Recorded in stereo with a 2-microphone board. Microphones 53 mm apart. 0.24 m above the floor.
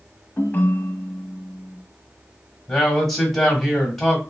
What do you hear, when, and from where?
0.4 s a ringtone: 40° left (ahead or behind), 0.5 m
2.7 s a man speaking: 5° left (ahead or behind), 1.1 m